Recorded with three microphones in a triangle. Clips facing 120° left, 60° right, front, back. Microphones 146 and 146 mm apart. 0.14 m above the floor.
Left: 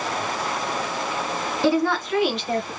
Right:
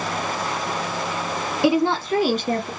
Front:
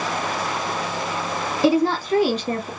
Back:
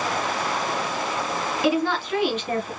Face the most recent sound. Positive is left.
turn(degrees=-45)